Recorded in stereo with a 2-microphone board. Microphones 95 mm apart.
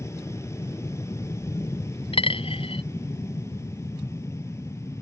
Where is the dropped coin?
70° left (ahead or behind).